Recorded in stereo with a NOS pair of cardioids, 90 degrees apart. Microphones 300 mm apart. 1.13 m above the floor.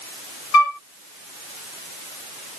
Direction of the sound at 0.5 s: 65° left.